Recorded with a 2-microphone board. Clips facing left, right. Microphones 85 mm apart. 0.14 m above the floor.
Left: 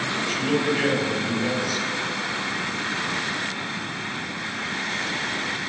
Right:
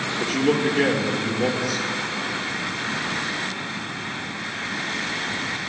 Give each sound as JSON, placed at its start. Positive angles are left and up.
{"t": 0.2, "sound": "a man speaking", "side_deg": -60, "distance_m": 2.5}